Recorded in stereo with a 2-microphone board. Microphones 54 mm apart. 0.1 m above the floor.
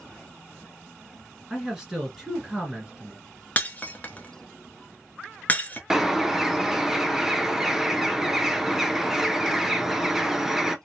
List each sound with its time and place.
1.5 s a man speaking: 10° right (ahead or behind), 1.4 m
3.6 s breaking glass: 30° left (ahead or behind), 0.6 m
5.9 s a bird: 5° right (ahead or behind), 0.5 m